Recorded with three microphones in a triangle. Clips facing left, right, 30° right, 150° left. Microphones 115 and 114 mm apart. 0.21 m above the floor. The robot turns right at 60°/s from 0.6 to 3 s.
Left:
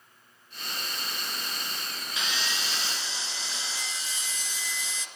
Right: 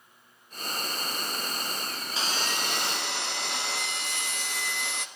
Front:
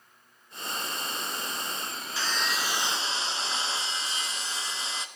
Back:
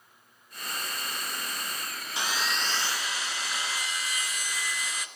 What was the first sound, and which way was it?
Sawing, 140° right.